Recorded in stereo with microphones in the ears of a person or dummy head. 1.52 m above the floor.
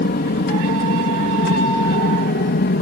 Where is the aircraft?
45° left (ahead or behind).